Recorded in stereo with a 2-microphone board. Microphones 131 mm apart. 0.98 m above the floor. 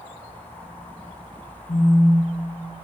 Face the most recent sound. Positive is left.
turn(degrees=65)  # may be behind; listen again after turning